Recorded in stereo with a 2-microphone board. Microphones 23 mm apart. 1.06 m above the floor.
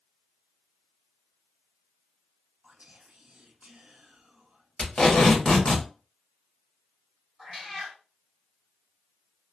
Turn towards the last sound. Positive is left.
turn(degrees=0)  # may be behind; listen again after turning